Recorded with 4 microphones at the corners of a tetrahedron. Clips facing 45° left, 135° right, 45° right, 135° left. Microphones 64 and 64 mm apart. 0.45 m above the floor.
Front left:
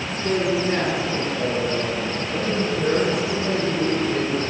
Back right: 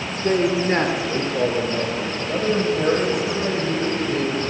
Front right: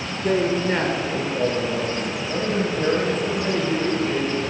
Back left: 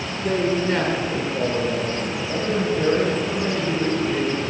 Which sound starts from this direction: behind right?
A man speaking, at 0.2 s.